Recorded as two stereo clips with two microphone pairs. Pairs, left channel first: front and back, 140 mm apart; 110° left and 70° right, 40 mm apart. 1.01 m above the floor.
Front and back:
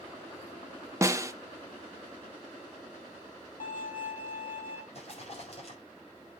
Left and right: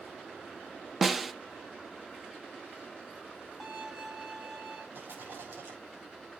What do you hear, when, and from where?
1.0 s a snare drum: 160° right, 0.6 m
3.6 s a violin: 20° left, 3 m
4.9 s a rattle: 40° right, 5 m